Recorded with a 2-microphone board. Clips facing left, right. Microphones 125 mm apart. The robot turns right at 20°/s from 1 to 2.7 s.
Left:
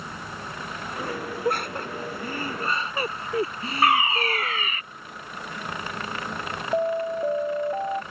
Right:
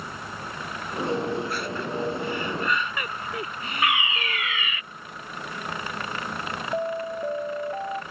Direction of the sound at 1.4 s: 55° left (ahead or behind).